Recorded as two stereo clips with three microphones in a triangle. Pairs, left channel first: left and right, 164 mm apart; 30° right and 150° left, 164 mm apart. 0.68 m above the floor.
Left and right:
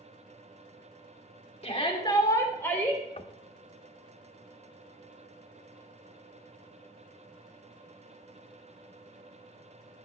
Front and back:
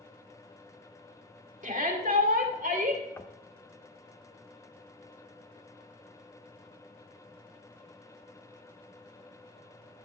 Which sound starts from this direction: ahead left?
Knocking, at 3.2 s.